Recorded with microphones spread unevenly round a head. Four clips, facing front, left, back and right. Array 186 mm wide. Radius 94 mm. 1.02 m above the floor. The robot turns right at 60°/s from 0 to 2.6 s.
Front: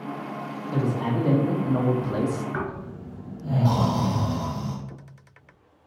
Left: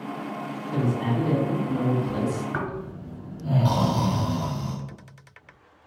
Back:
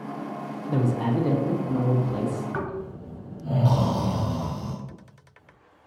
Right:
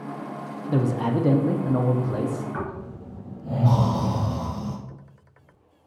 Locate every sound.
0.7 s a man speaking: 120° right, 0.6 m; by 2.4 s 15° right, 0.6 m
2.5 s snoring: 85° left, 1.9 m; by 4.8 s 90° left, 1.9 m